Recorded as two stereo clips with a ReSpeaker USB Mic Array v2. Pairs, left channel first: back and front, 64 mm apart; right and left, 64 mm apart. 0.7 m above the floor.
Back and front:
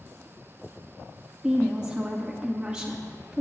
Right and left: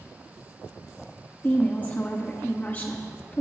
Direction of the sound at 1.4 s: 60° right.